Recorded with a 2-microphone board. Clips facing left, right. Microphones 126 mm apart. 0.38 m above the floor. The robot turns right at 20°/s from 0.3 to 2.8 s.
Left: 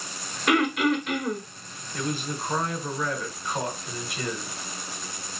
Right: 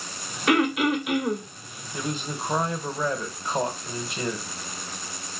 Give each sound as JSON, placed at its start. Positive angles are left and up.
{"t": 0.5, "sound": "throat clearing", "side_deg": 0, "distance_m": 0.8}
{"t": 1.9, "sound": "a man speaking", "side_deg": -20, "distance_m": 1.0}